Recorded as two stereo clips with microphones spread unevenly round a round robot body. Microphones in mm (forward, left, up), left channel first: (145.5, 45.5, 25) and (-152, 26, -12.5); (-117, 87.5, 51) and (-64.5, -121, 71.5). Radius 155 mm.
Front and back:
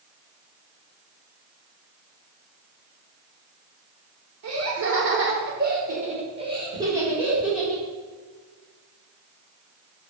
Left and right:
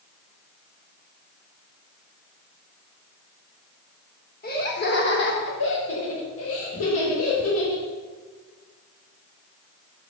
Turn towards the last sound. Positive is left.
turn(degrees=95)